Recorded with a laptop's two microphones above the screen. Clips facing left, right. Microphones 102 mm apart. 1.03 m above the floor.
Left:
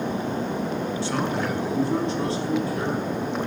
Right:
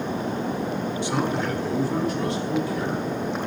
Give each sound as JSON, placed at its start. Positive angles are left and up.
{"t": 1.0, "sound": "a man speaking", "side_deg": -20, "distance_m": 1.3}